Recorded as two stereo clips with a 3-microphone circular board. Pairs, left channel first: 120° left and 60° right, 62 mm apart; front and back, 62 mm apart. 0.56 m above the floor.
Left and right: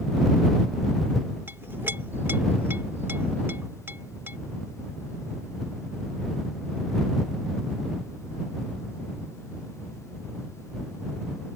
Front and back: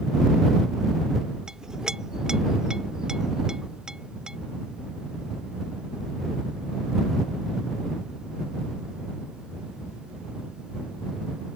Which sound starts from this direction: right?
A clink, at 1.5 s.